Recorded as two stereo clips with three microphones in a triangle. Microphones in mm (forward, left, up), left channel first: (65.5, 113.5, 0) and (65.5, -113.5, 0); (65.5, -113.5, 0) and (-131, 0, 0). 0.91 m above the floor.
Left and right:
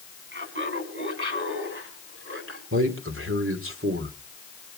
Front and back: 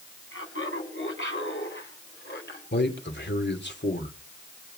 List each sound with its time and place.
0.3 s laughter: 55° right, 6 m; by 2.6 s 70° right, 8.5 m
2.7 s a man speaking: 70° right, 3 m